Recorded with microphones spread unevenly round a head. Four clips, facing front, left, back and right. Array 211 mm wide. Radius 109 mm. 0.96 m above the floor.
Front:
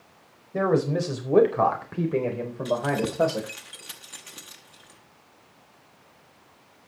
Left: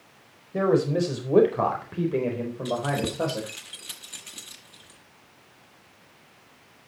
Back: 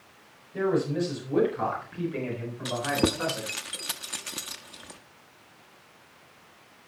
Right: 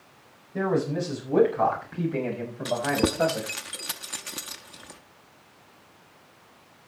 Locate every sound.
0.5 s a man speaking: 40° left, 4 m; by 3.5 s 5° left, 4 m
2.6 s keys jangling: 145° right, 1.0 m